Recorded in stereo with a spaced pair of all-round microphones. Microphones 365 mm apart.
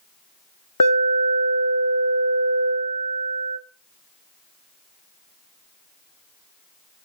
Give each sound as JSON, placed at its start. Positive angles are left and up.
{"t": 0.8, "sound": "an alarm", "side_deg": 60, "distance_m": 1.8}